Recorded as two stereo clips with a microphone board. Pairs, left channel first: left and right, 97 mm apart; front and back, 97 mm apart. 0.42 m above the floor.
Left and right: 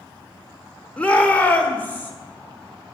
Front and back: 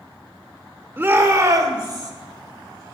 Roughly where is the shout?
Behind left.